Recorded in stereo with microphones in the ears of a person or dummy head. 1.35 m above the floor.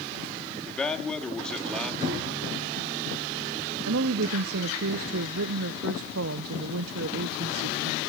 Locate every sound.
0.7 s a man speaking: centre (ahead or behind), 2.5 m
2.0 s a cupboard door: 30° right (ahead or behind), 8.5 m
3.9 s a woman speaking: 70° right (ahead or behind), 0.7 m